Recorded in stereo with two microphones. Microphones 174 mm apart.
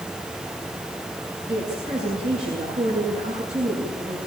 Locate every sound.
1.5 s a woman speaking: 45° right (ahead or behind), 8.5 m